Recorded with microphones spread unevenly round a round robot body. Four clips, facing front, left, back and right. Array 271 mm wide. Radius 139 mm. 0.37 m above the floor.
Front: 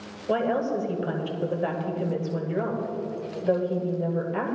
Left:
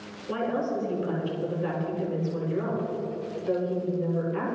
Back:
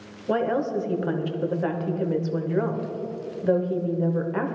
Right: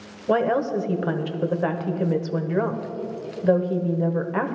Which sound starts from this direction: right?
A woman speaking, at 0.3 s.